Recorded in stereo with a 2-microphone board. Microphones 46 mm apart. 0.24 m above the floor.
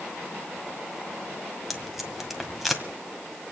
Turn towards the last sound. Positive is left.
turn(degrees=0)  # may be behind; listen again after turning